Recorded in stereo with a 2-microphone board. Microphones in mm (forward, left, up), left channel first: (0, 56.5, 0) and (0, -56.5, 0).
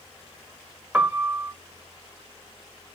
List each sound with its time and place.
0.9 s a piano: 15° right (ahead or behind), 0.9 m